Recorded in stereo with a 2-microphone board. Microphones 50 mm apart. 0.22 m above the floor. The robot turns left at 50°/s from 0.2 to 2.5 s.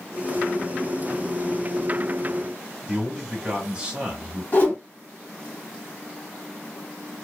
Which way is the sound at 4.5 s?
40° left (ahead or behind).